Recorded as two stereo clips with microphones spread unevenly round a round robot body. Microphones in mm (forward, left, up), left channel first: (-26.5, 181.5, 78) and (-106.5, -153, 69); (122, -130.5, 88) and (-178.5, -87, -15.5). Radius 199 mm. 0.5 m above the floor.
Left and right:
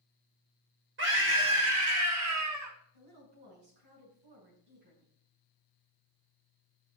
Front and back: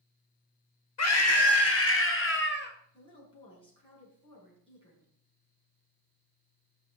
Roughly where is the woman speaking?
Right.